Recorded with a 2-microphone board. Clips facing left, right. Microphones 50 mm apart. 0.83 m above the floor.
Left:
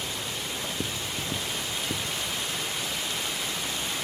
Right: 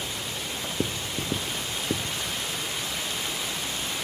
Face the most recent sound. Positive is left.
turn(degrees=-50)  # may be behind; listen again after turning